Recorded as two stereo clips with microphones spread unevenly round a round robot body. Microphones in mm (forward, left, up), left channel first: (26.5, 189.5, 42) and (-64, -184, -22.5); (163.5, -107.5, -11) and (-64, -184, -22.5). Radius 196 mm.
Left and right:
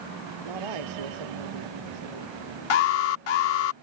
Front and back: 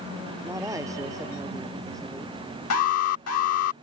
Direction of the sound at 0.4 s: 85° right.